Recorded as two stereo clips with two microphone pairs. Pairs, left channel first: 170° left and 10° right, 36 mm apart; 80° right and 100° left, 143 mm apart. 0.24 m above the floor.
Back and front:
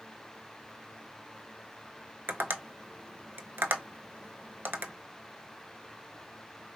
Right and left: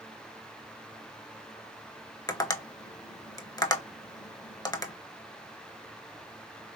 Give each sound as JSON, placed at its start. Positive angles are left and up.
{"t": 2.3, "sound": "tapping", "azimuth_deg": -15, "distance_m": 0.6}